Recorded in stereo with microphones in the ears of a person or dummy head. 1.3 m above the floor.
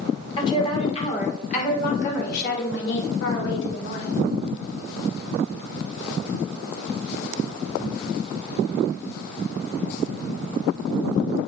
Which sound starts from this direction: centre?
A woman speaking, at 0.4 s.